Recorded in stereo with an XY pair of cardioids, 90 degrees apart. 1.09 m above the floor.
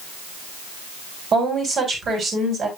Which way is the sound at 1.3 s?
60° right.